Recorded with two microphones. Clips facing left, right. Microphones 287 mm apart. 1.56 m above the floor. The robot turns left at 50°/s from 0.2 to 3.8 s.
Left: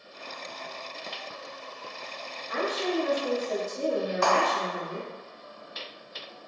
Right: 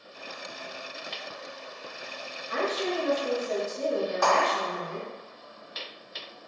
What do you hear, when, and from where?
2.5 s a woman speaking: 140° right, 1.6 m; by 5.1 s 155° left, 1.6 m
4.2 s a clap: 35° left (ahead or behind), 1.7 m